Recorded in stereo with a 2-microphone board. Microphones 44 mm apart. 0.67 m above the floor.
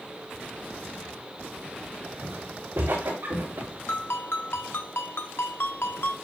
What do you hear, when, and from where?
2.2 s footsteps: 60° right (ahead or behind), 4.5 m; by 3.7 s 75° right (ahead or behind), 5 m
3.9 s a ringtone: 60° left (ahead or behind), 0.9 m